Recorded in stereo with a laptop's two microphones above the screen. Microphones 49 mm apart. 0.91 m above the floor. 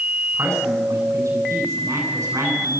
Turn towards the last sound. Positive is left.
turn(degrees=-85)